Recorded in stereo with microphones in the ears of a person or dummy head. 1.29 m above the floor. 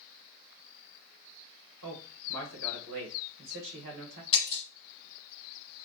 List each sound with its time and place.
1.8 s a man speaking: 70° right (ahead or behind), 1.4 m
4.3 s breaking glass: 35° left (ahead or behind), 1.0 m